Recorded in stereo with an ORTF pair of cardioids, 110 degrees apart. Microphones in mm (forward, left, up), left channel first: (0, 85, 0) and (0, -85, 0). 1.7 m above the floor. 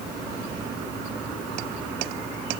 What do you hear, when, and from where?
Only background noise.